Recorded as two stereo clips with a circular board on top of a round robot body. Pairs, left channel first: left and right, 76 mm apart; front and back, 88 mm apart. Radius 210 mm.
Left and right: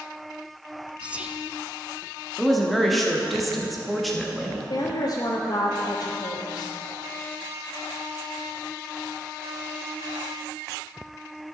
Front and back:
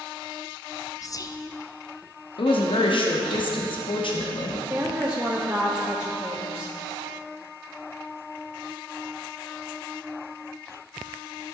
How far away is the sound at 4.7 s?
About 1.2 m.